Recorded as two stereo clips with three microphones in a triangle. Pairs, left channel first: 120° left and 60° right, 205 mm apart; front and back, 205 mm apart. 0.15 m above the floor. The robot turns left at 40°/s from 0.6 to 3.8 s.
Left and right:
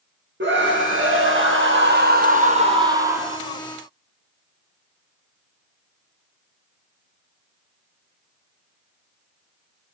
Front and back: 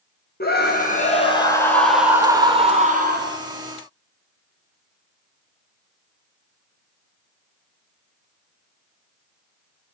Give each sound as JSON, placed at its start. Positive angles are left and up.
{"t": 0.4, "sound": "a scream", "azimuth_deg": -35, "distance_m": 5.0}